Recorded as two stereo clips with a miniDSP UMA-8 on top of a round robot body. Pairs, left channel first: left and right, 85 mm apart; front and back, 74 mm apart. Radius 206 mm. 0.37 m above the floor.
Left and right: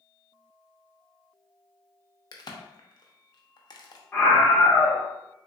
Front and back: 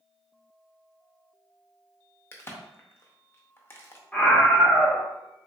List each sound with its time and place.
2.3 s a crack: 55° left, 0.8 m
4.1 s a scream: 55° left, 1.3 m